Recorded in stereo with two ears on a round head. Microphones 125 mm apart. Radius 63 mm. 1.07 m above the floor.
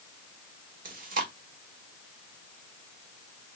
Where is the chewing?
65° right (ahead or behind), 1.3 m.